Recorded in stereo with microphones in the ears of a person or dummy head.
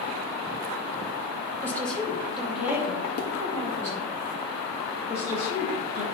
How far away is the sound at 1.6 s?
About 1.3 m.